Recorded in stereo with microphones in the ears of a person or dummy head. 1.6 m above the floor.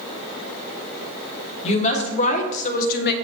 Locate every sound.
1.6 s a woman speaking: 40° left (ahead or behind), 1.6 m; by 3.1 s 60° left (ahead or behind), 0.7 m